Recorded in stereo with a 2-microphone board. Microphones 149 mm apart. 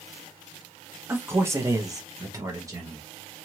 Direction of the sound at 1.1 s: 15° right (ahead or behind).